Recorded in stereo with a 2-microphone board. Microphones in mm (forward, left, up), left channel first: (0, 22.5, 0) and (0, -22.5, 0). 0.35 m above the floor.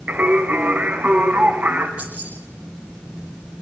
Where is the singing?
35° right (ahead or behind), 3 m.